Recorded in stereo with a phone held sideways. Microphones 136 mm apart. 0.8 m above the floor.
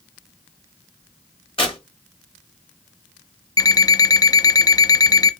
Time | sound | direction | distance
1.6 | tearing paper | 40° left (ahead or behind) | 1.9 m
3.6 | an alarm clock | 25° left (ahead or behind) | 0.6 m